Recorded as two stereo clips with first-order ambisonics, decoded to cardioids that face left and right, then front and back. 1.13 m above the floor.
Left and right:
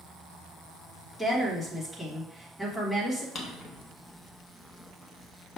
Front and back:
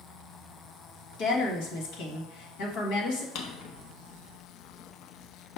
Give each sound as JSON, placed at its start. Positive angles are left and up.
{"t": 1.2, "sound": "a woman speaking", "azimuth_deg": 10, "distance_m": 1.4}
{"t": 3.4, "sound": "a drawer", "azimuth_deg": 30, "distance_m": 0.6}